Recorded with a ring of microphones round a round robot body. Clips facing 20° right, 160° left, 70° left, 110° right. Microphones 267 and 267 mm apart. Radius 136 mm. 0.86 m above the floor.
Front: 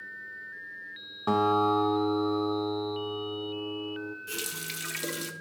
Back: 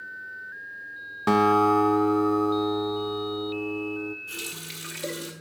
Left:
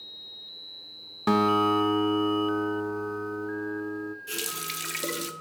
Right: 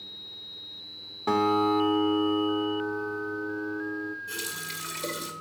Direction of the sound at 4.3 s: 25° left.